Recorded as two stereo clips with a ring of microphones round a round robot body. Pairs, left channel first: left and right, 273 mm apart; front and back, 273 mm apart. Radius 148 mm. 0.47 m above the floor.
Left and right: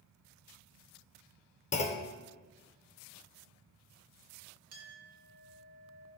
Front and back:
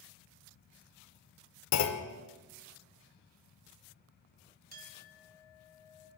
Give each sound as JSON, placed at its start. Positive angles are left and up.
{"t": 1.7, "sound": "a clunk", "azimuth_deg": 25, "distance_m": 0.7}
{"t": 4.7, "sound": "a clink", "azimuth_deg": -125, "distance_m": 2.0}